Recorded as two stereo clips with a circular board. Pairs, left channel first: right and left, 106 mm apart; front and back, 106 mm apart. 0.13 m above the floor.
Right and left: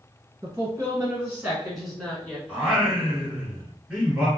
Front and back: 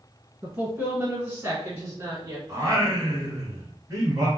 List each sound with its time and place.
0.4 s a woman speaking: 110° left, 1.5 m; by 2.4 s 160° right, 1.5 m
2.5 s singing: 165° left, 1.4 m